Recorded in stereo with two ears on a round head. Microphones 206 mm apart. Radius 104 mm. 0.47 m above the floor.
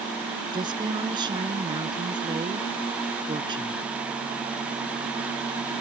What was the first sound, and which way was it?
A woman speaking, 20° right (ahead or behind).